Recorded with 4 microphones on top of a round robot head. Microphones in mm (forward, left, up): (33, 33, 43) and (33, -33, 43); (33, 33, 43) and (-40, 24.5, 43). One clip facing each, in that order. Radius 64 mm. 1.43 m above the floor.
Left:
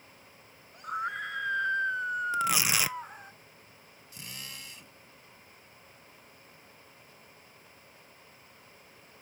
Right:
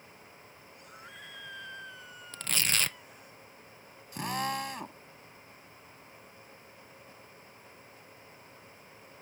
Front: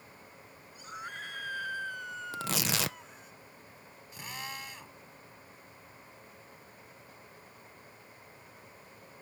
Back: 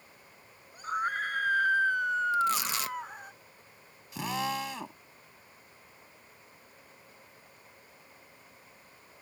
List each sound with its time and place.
0.7 s a scream: 140° left; by 3.3 s 150° left
2.3 s tearing paper: 10° left
4.1 s a drill: 145° right